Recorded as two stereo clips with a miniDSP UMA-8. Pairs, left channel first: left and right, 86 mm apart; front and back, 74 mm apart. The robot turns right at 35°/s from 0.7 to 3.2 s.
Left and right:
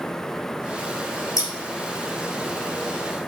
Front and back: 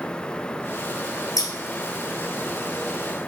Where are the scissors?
40° left, 2.0 m; by 1.5 s 45° left, 2.0 m.